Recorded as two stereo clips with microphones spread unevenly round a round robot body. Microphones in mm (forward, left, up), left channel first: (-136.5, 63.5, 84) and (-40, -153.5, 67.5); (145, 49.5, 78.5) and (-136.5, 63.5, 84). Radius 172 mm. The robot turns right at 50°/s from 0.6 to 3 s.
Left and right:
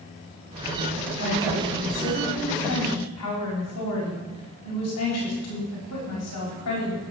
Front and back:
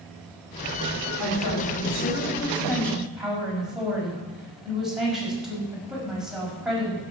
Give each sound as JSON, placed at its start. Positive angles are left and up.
{"t": 1.2, "sound": "a woman speaking", "azimuth_deg": 0, "distance_m": 5.5}